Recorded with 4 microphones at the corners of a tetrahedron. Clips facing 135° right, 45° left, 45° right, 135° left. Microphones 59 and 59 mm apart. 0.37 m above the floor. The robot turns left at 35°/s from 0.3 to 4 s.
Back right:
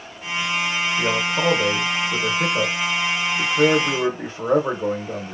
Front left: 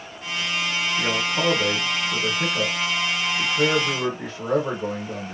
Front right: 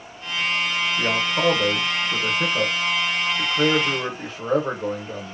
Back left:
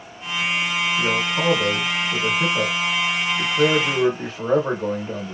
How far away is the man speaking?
About 0.8 m.